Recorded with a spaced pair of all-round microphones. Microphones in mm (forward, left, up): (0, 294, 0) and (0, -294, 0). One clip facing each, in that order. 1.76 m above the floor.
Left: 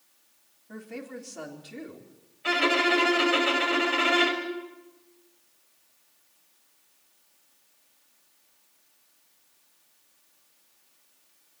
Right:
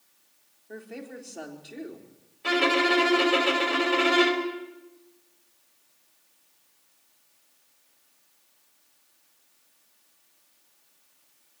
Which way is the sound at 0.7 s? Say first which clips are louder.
Left 1 dB; 30° left (ahead or behind).